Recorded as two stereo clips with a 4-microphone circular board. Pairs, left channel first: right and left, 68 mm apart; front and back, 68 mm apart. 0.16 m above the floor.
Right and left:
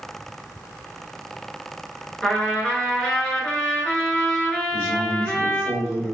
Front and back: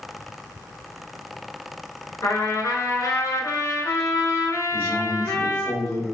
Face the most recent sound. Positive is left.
turn(degrees=-55)